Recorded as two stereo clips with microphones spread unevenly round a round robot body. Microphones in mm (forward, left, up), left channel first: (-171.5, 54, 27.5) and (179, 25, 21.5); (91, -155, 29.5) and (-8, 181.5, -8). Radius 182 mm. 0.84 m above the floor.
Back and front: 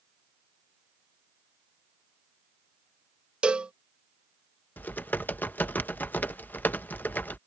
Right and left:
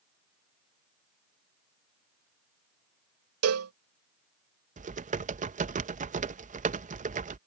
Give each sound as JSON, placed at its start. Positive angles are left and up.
{"t": 3.4, "sound": "a cowbell", "azimuth_deg": 80}
{"t": 4.8, "sound": "typing on a keyboard", "azimuth_deg": 95}